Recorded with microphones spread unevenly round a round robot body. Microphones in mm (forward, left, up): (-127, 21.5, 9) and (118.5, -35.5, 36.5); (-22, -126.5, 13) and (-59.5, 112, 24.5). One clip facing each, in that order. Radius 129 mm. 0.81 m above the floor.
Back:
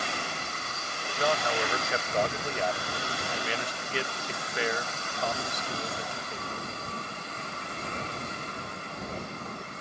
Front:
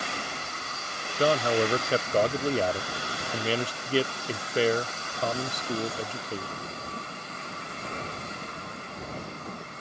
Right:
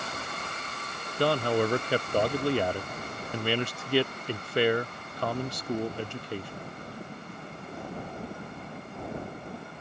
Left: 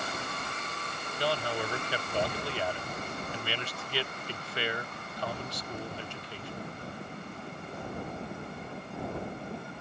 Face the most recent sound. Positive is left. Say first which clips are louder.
# front 6 dB, right 8 dB
turn(degrees=-65)